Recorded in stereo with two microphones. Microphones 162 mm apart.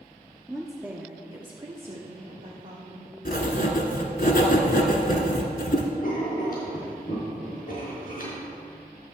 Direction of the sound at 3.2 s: 65° left (ahead or behind).